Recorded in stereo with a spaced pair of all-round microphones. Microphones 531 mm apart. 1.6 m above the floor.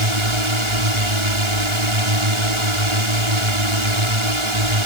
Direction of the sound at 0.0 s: 70° right (ahead or behind).